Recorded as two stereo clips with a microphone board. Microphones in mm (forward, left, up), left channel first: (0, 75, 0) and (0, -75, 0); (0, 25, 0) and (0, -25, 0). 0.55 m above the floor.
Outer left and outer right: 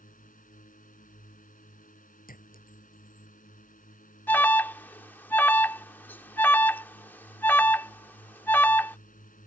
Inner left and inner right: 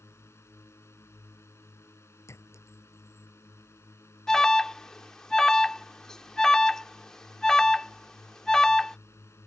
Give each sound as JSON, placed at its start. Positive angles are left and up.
{"t": 0.0, "sound": "a drone", "side_deg": 60}
{"t": 2.3, "sound": "a clink", "side_deg": 70}
{"t": 4.3, "sound": "an alarm", "side_deg": 15}